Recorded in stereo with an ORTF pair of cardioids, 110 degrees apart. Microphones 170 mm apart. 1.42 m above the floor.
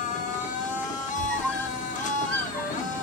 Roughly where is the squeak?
Ahead.